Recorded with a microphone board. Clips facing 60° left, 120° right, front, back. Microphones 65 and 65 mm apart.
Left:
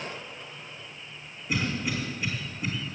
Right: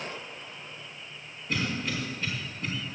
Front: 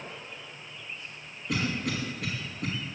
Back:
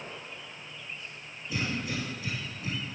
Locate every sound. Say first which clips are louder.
1.5 s a cough: left 1 dB, front 3 dB; 20° right, 4 m